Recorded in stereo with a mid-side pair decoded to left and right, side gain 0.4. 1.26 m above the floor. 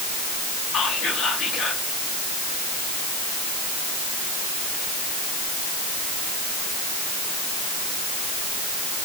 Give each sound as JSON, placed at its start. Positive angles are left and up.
{"t": 0.7, "sound": "whispering", "azimuth_deg": 70, "distance_m": 3.0}